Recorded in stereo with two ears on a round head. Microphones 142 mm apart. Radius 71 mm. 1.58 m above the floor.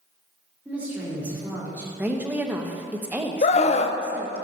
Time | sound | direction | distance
0.7 | a woman speaking | 10° right (ahead or behind) | 4.5 m
2.0 | a woman speaking | 10° right (ahead or behind) | 1.0 m
3.4 | a scream | 40° left (ahead or behind) | 0.6 m